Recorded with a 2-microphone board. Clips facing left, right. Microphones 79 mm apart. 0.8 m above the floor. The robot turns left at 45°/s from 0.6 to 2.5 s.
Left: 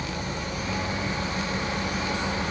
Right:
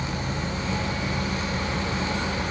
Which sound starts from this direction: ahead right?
An engine running, at 0.0 s.